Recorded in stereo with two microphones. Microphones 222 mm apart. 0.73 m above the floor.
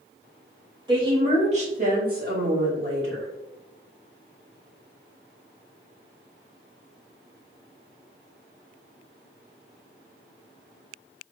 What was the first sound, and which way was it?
A woman speaking, 20° right (ahead or behind).